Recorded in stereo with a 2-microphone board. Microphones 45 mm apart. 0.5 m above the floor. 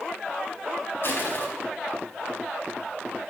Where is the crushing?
50° left (ahead or behind), 4.5 m.